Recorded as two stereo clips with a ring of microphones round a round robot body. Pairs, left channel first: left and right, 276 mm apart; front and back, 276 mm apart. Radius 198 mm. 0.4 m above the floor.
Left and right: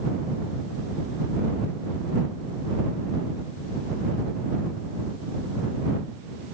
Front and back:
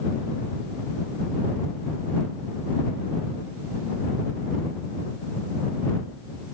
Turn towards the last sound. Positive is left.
No sound to turn to.